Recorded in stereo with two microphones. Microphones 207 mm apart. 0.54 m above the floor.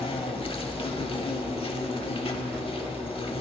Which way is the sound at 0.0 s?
25° left (ahead or behind).